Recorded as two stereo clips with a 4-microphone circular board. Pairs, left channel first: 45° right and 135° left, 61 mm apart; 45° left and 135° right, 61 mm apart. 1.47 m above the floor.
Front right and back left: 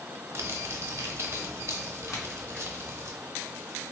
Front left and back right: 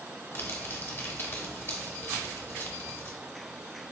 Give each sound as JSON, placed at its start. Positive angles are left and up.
{"t": 0.3, "sound": "crumpling", "azimuth_deg": 100, "distance_m": 0.7}
{"t": 2.1, "sound": "a crack", "azimuth_deg": -75, "distance_m": 1.1}